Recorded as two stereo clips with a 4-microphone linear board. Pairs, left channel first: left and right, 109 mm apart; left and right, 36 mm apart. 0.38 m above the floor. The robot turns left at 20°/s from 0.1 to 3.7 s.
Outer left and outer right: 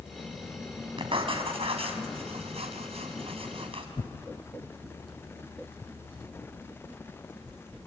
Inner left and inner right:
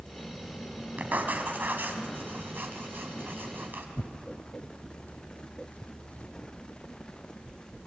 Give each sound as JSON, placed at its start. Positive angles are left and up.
{"t": 1.0, "sound": "writing", "side_deg": -55, "distance_m": 3.0}
{"t": 4.0, "sound": "tearing paper", "side_deg": 50, "distance_m": 1.3}